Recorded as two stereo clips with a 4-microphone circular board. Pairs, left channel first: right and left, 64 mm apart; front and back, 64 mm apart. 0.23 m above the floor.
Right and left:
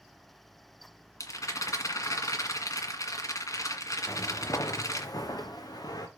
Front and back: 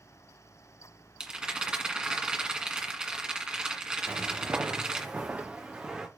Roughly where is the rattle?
Right.